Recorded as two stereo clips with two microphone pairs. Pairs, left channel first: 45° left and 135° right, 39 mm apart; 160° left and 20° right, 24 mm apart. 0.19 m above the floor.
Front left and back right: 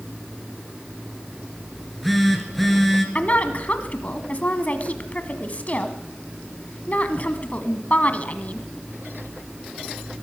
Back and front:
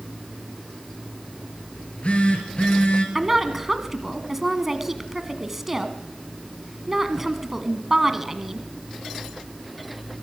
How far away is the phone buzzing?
About 2.5 m.